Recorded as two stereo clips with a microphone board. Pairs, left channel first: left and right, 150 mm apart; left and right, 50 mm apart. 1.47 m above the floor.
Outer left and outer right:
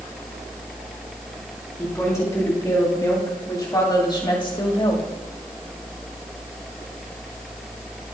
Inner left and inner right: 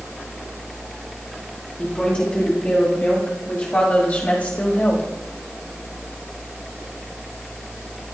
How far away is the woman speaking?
About 3.5 m.